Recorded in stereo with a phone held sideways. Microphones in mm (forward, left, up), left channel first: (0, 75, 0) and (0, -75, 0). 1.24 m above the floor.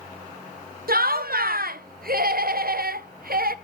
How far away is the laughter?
About 0.5 m.